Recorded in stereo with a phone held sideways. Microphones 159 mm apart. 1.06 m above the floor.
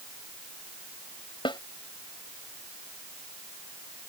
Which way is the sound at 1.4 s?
35° left (ahead or behind).